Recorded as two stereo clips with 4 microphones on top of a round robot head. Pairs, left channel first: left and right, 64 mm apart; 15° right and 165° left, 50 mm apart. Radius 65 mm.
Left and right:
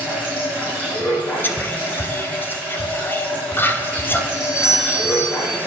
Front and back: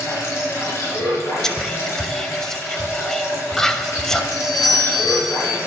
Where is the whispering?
65° left, 1.1 m.